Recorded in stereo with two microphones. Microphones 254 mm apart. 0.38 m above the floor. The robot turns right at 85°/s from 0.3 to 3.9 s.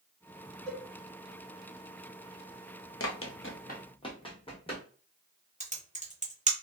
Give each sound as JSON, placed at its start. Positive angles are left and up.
{"t": 0.7, "sound": "a cowbell", "side_deg": -60, "distance_m": 1.9}
{"t": 3.0, "sound": "running footsteps", "side_deg": 55, "distance_m": 0.5}
{"t": 5.6, "sound": "typing on a keyboard", "side_deg": -30, "distance_m": 0.7}